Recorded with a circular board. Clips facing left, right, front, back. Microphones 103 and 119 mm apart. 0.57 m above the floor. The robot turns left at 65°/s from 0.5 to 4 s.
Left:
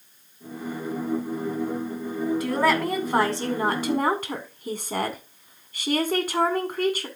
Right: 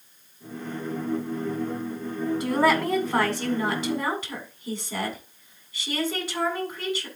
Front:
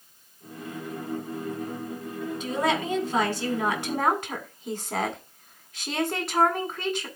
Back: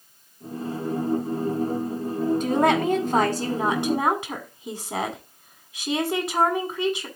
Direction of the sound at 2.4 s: 145° right.